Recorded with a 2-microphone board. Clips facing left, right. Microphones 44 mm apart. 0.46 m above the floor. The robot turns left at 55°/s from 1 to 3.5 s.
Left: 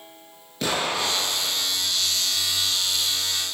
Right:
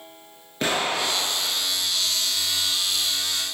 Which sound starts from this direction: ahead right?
An explosion, at 0.6 s.